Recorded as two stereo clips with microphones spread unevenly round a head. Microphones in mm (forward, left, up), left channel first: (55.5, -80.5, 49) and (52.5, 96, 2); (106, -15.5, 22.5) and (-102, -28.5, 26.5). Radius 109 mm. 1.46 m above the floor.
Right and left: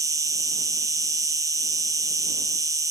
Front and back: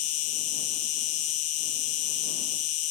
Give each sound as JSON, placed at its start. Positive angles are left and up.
{"t": 0.0, "sound": "an insect", "azimuth_deg": 20}